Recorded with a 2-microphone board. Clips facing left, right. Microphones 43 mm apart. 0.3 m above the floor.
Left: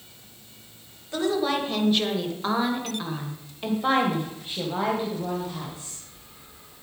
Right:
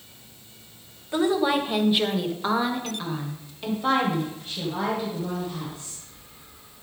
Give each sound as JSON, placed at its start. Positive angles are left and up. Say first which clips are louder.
{"t": 1.1, "sound": "a woman speaking", "louder": "right 3 dB", "side_deg": -15, "distance_m": 1.5}